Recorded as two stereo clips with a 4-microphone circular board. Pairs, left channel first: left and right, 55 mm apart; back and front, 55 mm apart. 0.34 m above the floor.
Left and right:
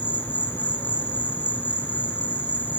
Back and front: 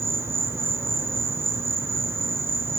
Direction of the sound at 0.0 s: 35° left.